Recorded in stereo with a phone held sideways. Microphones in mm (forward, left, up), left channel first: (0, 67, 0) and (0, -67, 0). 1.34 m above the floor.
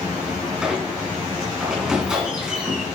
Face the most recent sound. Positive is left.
turn(degrees=-5)  # may be behind; listen again after turning